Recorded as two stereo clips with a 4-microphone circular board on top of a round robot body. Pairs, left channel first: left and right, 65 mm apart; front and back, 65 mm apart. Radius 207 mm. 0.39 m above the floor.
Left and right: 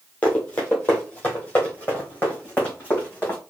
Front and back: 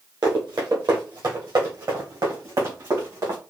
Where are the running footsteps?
160° left, 1.1 m; by 3.4 s 155° left, 3 m.